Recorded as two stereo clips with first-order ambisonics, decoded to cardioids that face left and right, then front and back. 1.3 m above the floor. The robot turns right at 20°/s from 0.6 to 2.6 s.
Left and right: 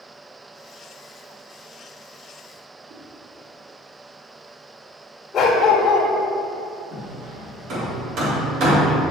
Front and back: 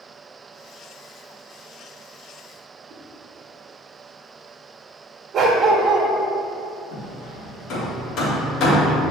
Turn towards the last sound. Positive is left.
turn(degrees=-45)